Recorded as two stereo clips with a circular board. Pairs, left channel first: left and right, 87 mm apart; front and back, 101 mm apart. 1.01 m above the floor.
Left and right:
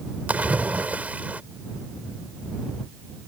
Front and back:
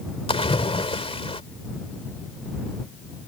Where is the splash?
20° right.